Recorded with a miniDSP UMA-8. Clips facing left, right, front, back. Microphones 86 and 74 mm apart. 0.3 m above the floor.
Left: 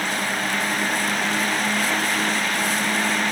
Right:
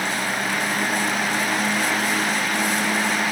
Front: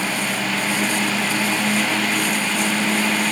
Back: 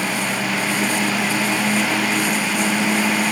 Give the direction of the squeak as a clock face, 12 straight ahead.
I don't hear a squeak.